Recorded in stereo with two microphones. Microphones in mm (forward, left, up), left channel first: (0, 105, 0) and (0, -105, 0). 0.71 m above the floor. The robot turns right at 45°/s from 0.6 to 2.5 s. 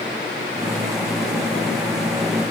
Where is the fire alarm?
I don't hear a fire alarm.